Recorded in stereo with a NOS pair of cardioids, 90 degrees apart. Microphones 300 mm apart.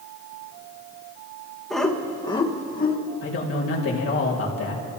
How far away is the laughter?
About 2.5 m.